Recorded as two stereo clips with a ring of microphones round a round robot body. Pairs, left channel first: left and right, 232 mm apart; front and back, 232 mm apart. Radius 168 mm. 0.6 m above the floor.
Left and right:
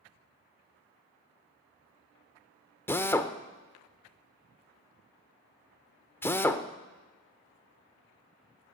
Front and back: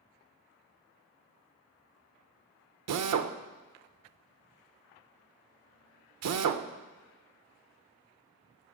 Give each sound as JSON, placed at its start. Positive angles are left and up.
{"t": 2.9, "sound": "a drill", "azimuth_deg": 170, "distance_m": 0.7}